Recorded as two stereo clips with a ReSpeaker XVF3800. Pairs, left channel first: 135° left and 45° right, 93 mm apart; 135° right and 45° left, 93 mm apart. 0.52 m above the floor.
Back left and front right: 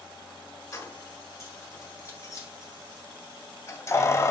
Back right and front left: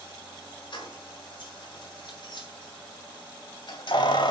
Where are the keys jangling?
170° right, 4.5 m; by 4.3 s 165° right, 2 m.